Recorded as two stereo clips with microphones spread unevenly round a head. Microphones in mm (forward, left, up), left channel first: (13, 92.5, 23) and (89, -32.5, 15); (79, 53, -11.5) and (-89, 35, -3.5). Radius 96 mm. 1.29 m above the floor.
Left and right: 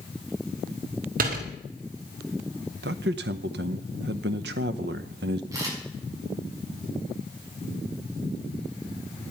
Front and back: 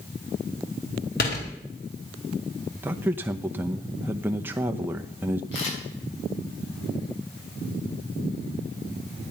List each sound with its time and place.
1.2 s a door slam: 40° right, 3.5 m
2.8 s a man speaking: 95° right, 0.7 m
5.5 s a camera shutter: 10° left, 7.5 m